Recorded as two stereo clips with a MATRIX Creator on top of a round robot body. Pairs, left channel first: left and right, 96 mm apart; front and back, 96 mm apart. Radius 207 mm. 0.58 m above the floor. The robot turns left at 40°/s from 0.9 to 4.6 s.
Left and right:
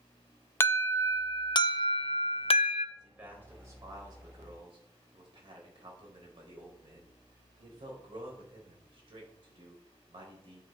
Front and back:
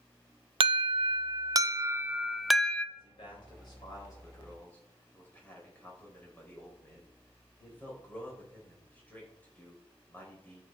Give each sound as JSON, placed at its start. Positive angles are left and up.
{"t": 0.6, "sound": "an alarm", "azimuth_deg": 155, "distance_m": 0.7}
{"t": 3.0, "sound": "a man speaking", "azimuth_deg": -5, "distance_m": 4.5}